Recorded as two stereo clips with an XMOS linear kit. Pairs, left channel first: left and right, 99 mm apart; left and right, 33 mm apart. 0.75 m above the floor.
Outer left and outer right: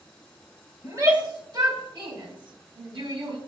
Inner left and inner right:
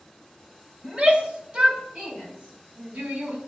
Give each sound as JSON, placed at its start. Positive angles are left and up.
{"t": 0.8, "sound": "a shout", "side_deg": -40, "distance_m": 4.5}